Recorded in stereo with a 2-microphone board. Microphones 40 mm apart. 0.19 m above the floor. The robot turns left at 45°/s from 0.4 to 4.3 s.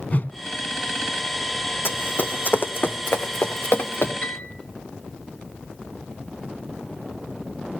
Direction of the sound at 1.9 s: 65° left (ahead or behind).